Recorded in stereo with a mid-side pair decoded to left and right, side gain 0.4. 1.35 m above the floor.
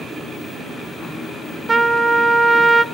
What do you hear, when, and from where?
1.7 s a trumpet: 30° right, 0.7 m